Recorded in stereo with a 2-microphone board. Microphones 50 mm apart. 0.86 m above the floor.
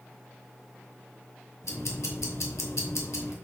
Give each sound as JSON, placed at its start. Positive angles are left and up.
{"t": 1.6, "sound": "ticking", "side_deg": 85, "distance_m": 2.5}